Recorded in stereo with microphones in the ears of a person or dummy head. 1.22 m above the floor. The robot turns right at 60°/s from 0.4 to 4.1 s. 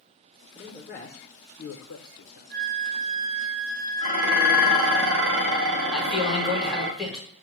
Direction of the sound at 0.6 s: 10° left (ahead or behind).